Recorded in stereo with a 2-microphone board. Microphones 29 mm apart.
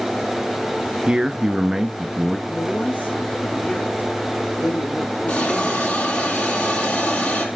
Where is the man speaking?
30° right (ahead or behind), 1.2 m; by 2.4 s centre (ahead or behind), 1.1 m.